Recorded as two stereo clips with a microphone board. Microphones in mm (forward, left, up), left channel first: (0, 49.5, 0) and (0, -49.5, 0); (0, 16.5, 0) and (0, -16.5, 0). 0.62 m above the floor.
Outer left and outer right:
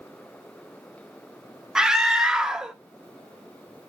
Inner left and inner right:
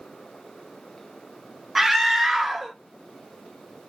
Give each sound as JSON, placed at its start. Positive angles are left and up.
{"t": 1.8, "sound": "a scream", "side_deg": -5, "distance_m": 0.9}